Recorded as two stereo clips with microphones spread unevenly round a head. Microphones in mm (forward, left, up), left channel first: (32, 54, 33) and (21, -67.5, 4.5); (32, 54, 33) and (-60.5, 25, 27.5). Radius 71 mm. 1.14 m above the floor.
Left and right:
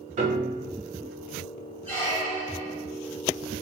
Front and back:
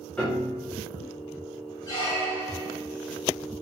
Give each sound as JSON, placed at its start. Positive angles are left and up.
{"t": 0.2, "sound": "a piano", "azimuth_deg": -60, "distance_m": 0.7}
{"t": 1.9, "sound": "a squeak", "azimuth_deg": 30, "distance_m": 1.5}